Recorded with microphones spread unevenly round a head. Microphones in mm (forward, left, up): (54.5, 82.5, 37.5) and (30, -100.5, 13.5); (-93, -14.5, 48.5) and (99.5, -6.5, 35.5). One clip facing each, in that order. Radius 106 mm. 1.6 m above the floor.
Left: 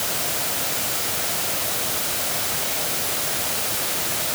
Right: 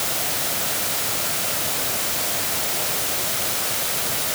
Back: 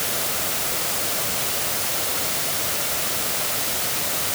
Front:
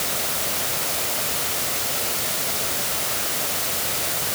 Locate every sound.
Only background noise.